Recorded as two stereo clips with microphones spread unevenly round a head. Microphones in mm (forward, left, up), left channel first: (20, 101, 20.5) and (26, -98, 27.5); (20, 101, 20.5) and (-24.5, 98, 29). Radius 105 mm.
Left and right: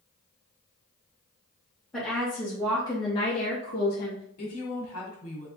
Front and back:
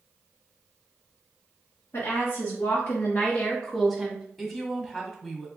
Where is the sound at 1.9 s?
5° left, 1.6 m; by 4.2 s 130° left, 0.9 m.